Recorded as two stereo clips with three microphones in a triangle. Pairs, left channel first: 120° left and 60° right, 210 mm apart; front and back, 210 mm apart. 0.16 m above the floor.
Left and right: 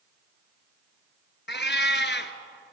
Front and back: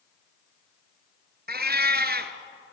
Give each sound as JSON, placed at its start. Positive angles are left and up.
{"t": 1.5, "sound": "a cat meowing", "azimuth_deg": 145, "distance_m": 1.3}